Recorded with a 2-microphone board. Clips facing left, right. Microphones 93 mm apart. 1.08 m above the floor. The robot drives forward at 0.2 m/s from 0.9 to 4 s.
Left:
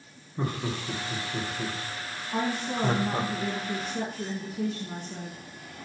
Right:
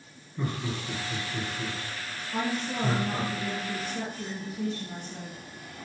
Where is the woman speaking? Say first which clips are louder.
Left 1 dB; 55° left (ahead or behind), 1.4 m; by 5.4 s 65° left (ahead or behind), 1.3 m.